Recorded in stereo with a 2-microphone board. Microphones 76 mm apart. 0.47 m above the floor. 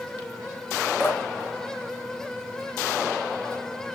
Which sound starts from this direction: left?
Dripping, at 1.0 s.